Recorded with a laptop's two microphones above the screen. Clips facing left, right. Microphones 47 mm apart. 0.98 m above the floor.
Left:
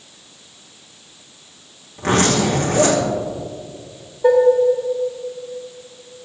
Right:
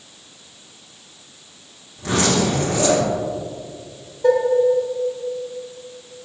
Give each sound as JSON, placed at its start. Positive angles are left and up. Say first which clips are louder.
{"t": 2.0, "sound": "a zipper", "louder": "left 2 dB", "side_deg": 55, "distance_m": 2.5}
{"t": 4.2, "sound": "dishes clattering", "louder": "left 4 dB", "side_deg": 15, "distance_m": 2.0}